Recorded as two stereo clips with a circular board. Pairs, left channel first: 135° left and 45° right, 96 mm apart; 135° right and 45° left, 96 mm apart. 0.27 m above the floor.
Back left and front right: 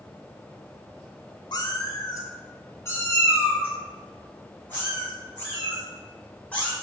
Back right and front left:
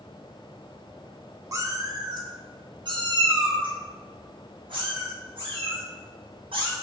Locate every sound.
1.5 s a cat meowing: 95° left, 0.7 m; by 6.7 s 60° left, 3 m